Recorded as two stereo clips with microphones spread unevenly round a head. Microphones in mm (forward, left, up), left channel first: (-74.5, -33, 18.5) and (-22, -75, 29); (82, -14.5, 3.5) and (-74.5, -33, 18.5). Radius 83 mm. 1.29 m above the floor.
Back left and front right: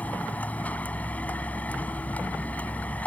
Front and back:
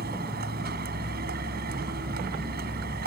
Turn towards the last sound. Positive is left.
turn(degrees=-150)